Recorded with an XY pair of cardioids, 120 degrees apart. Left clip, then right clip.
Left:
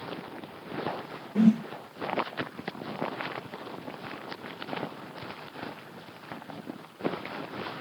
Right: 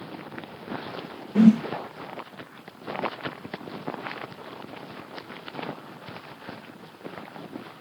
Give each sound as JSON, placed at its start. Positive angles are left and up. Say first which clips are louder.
{"t": 1.4, "sound": "a whoosh", "louder": "right 5 dB", "azimuth_deg": -30, "distance_m": 0.8}